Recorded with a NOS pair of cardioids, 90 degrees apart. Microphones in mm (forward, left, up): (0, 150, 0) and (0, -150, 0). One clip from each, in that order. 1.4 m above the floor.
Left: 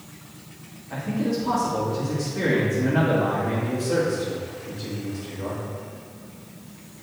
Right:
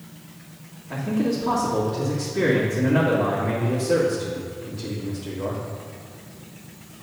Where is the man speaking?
30° right, 3 m.